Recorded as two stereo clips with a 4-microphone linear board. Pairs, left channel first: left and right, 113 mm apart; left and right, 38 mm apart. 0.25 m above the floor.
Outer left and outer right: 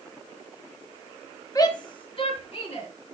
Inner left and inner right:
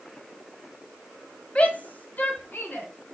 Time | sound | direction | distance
1.6 | a shout | 30° left (ahead or behind) | 1.3 m